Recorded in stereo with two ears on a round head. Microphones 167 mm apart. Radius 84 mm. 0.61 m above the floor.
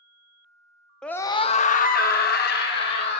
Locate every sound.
1.0 s a scream: 5° left (ahead or behind), 0.5 m; by 3.2 s 55° left (ahead or behind), 1.6 m